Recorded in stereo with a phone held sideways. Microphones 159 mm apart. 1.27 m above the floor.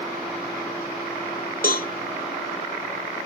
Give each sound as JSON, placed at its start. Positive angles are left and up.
{"t": 1.6, "sound": "a cowbell", "side_deg": 65, "distance_m": 1.7}